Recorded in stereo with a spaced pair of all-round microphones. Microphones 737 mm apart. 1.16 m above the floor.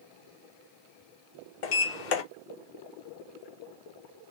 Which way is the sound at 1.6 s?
85° left.